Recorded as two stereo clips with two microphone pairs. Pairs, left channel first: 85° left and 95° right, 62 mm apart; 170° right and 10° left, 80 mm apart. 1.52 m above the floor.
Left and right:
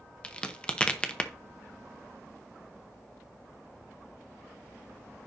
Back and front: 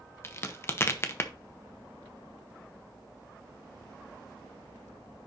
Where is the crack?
150° left, 0.8 m.